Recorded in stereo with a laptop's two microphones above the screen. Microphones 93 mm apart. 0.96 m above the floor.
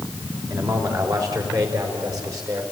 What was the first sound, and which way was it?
A man speaking, 40° right (ahead or behind).